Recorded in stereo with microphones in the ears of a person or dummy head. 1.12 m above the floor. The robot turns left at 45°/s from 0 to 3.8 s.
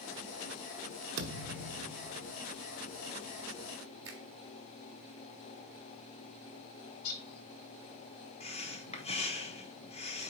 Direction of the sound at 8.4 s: 30° left (ahead or behind).